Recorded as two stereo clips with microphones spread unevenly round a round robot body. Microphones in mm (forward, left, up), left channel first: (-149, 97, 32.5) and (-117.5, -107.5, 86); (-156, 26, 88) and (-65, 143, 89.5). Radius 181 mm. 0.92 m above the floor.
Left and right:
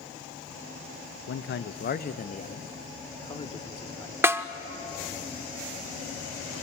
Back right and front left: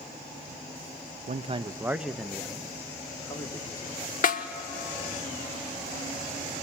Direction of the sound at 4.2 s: 155° right.